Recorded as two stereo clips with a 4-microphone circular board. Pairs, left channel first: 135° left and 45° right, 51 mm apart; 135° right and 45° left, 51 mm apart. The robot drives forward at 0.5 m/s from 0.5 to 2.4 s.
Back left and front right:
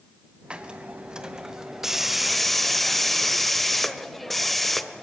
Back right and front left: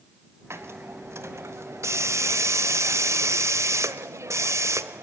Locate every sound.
0.5 s a hiss: 20° left, 1.6 m; by 5.0 s 45° left, 0.8 m